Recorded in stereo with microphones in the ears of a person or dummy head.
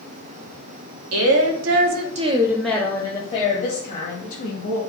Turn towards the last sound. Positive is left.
turn(degrees=50)  # may be behind; listen again after turning